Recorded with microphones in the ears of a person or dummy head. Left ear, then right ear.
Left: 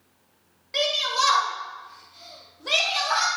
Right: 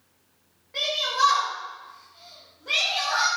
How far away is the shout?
About 3.5 m.